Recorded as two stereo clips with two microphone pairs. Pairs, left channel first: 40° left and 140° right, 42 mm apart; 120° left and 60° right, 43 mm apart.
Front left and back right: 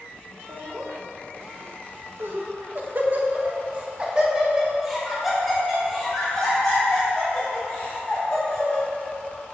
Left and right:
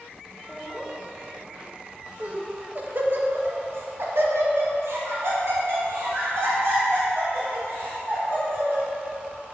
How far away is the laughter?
About 1.8 m.